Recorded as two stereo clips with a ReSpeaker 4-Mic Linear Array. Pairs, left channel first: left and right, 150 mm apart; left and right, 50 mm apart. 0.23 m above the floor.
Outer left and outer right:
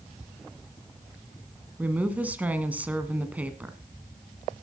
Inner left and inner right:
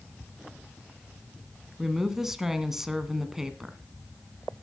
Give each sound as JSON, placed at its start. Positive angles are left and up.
{"t": 1.8, "sound": "a woman speaking", "side_deg": -10, "distance_m": 1.7}